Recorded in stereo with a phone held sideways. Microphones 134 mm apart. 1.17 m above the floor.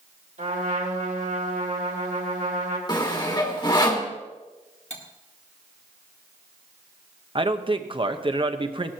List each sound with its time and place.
0.4 s a trumpet: 70° right (ahead or behind), 3 m
2.9 s sawing: 35° left (ahead or behind), 1.8 m
4.9 s cutlery clinking: 55° left (ahead or behind), 1.7 m
7.3 s a man speaking: 40° right (ahead or behind), 1.0 m